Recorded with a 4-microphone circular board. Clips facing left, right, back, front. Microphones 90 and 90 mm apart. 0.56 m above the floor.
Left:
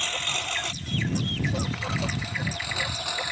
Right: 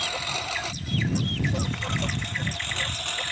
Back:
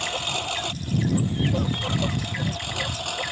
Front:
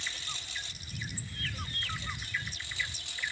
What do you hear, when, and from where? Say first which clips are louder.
0.0 s a lawn mower: right 1 dB, back 15 dB; 170° right; by 3.3 s 170° left